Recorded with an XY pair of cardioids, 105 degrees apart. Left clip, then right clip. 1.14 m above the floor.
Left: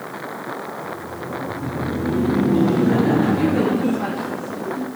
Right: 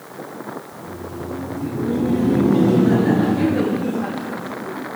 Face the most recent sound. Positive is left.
turn(degrees=55)